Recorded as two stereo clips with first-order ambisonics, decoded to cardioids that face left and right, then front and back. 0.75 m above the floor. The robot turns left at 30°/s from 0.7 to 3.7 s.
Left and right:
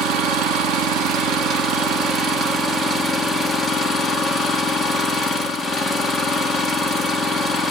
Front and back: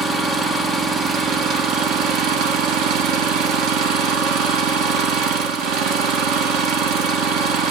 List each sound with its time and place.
0.0 s an engine running: 105° right, 1.1 m; by 7.7 s 165° left, 1.1 m